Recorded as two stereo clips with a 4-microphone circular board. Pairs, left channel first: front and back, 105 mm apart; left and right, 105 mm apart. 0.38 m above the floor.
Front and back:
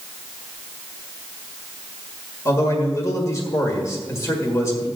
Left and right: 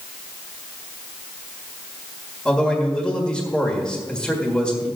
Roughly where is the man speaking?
Ahead.